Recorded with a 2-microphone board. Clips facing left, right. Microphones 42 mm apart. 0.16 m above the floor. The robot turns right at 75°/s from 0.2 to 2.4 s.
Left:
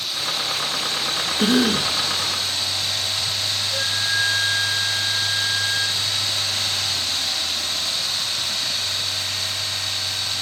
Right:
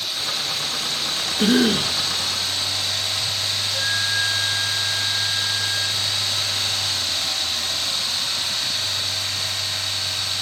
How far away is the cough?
About 1.9 m.